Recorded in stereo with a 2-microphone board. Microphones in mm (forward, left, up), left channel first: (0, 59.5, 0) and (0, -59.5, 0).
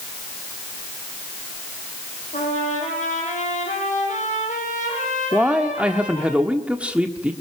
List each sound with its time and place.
2.3 s a trumpet: 75° left (ahead or behind), 7 m
5.3 s a man speaking: 10° right (ahead or behind), 1.4 m